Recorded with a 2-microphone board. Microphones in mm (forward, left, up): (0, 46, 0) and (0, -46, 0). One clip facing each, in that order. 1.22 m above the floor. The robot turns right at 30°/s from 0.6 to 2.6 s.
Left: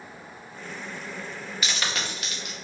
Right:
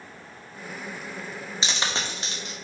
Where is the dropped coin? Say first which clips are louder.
Right 1 dB; 25° right (ahead or behind), 0.6 m; by 2.6 s 30° right (ahead or behind), 0.6 m.